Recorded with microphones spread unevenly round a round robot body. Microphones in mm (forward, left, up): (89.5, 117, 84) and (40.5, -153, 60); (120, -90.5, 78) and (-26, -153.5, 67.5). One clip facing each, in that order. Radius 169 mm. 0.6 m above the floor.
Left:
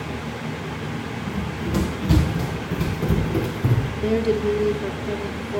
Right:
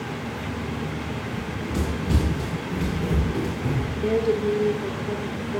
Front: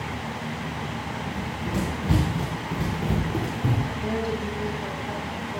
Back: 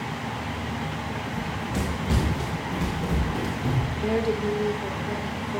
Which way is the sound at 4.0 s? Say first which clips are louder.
Left 1 dB, back 6 dB; 135° left.